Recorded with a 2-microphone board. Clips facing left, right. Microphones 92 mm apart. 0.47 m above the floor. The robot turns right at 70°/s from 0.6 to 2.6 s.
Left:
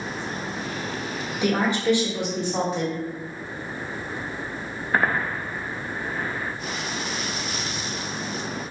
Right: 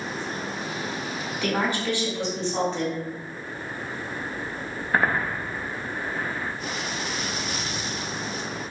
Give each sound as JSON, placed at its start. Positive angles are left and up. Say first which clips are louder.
{"t": 1.4, "sound": "a woman speaking", "louder": "left 4 dB", "side_deg": 20, "distance_m": 1.0}